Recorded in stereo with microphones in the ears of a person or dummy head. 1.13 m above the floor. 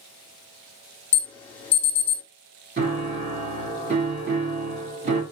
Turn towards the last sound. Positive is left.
turn(degrees=-40)  # may be behind; listen again after turning